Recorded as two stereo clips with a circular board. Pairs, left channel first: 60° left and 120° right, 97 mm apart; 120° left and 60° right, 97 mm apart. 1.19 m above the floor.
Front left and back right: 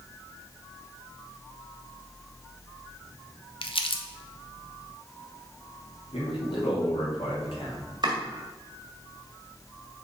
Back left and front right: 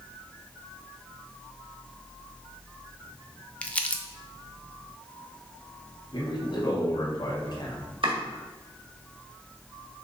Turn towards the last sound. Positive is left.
turn(degrees=-80)